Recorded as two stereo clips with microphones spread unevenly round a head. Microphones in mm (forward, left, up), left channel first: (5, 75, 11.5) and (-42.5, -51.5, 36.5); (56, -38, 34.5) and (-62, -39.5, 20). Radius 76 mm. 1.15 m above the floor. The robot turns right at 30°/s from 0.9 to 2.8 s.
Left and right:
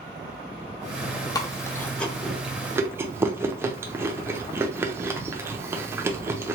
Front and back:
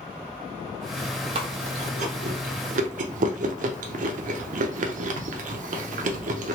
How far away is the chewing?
About 0.7 m.